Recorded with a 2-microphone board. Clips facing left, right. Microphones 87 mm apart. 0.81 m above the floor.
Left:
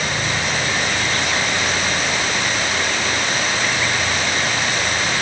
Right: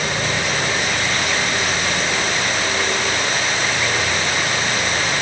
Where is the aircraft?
25° right (ahead or behind); by 5.2 s 30° right (ahead or behind).